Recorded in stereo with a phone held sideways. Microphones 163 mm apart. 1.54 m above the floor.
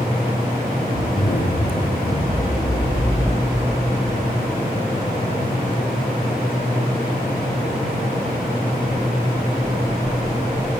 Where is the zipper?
60° left (ahead or behind), 2.5 m.